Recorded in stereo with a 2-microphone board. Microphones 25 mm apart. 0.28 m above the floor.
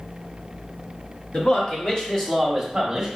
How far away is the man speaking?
About 1.7 m.